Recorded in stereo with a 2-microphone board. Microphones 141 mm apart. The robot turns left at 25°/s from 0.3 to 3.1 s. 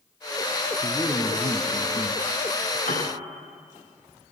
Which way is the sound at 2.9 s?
80° left.